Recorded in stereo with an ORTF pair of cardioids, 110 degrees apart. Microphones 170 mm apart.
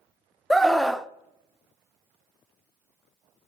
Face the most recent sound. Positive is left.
turn(degrees=0)